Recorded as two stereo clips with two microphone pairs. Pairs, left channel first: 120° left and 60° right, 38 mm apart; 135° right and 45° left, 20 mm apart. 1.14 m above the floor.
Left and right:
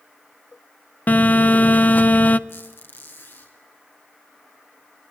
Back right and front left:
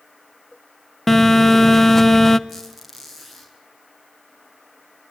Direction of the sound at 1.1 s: 145° left.